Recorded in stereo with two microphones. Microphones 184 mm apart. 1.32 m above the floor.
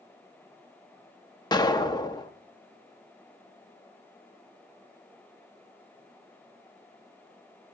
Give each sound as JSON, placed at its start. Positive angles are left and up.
{"t": 1.5, "sound": "an explosion", "side_deg": 20, "distance_m": 0.7}